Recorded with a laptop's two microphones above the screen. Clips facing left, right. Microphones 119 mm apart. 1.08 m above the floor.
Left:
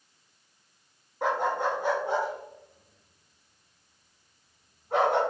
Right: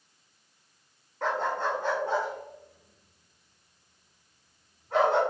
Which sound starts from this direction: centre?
A dog barking, at 1.2 s.